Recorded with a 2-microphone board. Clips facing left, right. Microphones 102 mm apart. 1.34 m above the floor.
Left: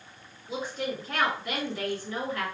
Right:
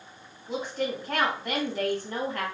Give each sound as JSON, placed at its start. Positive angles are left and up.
{"t": 0.5, "sound": "a woman speaking", "side_deg": -45, "distance_m": 1.7}